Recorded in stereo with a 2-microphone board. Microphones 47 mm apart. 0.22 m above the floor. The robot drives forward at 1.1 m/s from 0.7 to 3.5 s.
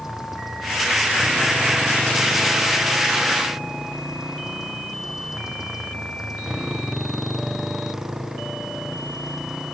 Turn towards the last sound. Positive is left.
turn(degrees=-10)  # may be behind; listen again after turning